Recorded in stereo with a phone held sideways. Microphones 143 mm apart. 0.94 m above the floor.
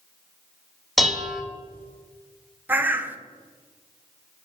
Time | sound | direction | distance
1.0 | dishes clattering | centre (ahead or behind) | 0.9 m
2.7 | a bird | 15° right (ahead or behind) | 0.5 m